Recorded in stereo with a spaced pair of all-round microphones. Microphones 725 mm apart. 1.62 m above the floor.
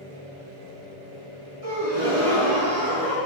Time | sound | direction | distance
1.6 | a gasp | 50° right (ahead or behind) | 3.5 m